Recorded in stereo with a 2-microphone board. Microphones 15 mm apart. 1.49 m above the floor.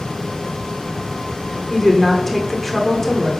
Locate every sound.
1.7 s a woman speaking: 15° left (ahead or behind), 1.3 m